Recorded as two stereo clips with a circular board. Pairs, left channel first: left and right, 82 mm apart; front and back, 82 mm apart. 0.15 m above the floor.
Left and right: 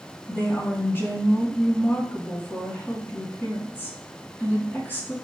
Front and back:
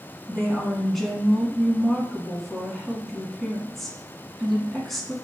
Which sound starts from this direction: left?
A woman speaking, at 0.3 s.